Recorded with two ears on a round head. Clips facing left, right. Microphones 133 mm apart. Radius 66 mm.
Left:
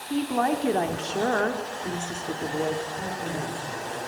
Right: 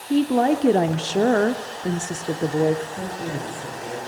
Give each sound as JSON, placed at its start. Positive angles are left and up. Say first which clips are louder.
{"t": 0.1, "sound": "a woman speaking", "louder": "right 6 dB", "side_deg": -40, "distance_m": 1.0}
{"t": 2.9, "sound": "a woman speaking", "louder": "right 2 dB", "side_deg": -35, "distance_m": 9.5}